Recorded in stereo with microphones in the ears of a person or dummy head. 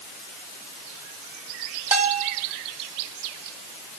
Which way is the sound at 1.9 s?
5° right (ahead or behind).